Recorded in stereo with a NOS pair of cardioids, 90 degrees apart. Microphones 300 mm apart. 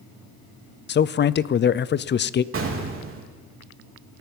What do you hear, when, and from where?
0.9 s a man speaking: 40° left, 0.6 m
2.5 s an explosion: 45° right, 3 m